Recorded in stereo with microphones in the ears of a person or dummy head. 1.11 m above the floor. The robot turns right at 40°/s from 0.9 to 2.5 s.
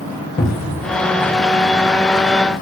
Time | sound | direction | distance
0.4 | a cupboard door | 30° left (ahead or behind) | 1.8 m